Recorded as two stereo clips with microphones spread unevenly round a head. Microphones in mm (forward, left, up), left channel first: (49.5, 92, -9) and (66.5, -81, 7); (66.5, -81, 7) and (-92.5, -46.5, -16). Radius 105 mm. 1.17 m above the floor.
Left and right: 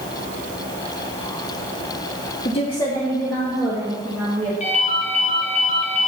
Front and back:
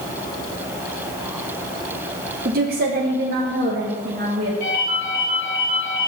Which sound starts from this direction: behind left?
A woman speaking, at 2.5 s.